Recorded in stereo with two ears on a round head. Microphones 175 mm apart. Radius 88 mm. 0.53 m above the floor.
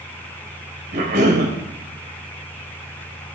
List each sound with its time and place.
0.9 s a cough: 55° right (ahead or behind), 2.5 m